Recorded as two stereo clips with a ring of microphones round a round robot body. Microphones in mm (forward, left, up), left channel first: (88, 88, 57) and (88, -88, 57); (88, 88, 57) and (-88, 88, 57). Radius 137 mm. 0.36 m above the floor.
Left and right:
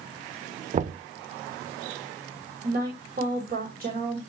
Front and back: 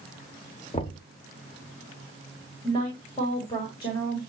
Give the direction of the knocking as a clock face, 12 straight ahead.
2 o'clock.